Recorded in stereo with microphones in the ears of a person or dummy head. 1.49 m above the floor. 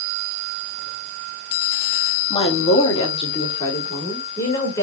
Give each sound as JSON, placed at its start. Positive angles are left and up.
{"t": 2.3, "sound": "a woman speaking", "side_deg": 30, "distance_m": 1.1}